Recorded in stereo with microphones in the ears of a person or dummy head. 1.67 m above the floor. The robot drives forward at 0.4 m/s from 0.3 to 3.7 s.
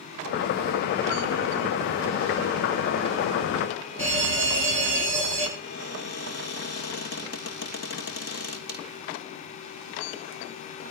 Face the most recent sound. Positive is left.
turn(degrees=55)  # may be behind; listen again after turning